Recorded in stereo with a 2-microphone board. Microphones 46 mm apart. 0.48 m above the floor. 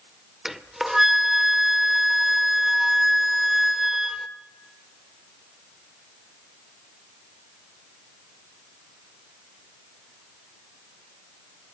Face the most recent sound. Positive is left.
turn(degrees=-5)  # may be behind; listen again after turning